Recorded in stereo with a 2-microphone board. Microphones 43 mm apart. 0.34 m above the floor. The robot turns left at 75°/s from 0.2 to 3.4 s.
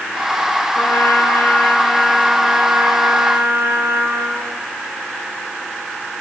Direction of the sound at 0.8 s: 110° left.